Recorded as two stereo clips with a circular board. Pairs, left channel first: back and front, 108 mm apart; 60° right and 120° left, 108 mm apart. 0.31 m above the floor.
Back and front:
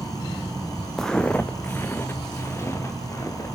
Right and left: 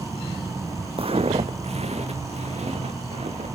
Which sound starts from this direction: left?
Footsteps, at 1.0 s.